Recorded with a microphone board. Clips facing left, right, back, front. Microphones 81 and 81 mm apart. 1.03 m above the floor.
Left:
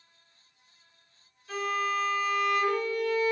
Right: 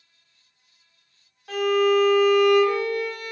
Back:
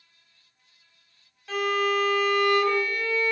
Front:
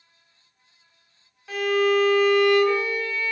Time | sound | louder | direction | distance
1.5 | a violin | right 10 dB, front 4 dB | 80° right | 1.3 m